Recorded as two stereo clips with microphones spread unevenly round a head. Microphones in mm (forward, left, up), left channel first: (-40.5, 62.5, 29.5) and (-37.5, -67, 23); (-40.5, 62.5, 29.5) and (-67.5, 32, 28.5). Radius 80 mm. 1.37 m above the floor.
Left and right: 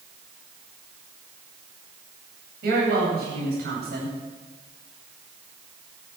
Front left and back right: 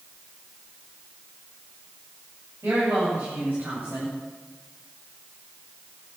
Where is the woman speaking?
65° right, 9 m.